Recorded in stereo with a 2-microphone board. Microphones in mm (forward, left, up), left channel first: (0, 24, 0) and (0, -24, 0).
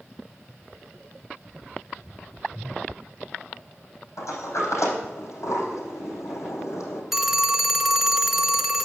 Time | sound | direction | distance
4.2 | a sliding door | 85° left | 4.5 m
7.1 | a phone ringing | 5° right (ahead or behind) | 0.7 m